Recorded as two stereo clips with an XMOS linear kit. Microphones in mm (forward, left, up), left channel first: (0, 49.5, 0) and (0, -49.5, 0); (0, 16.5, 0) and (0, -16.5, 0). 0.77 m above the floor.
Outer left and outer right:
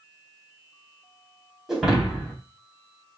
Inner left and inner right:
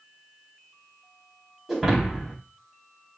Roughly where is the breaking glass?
Centre.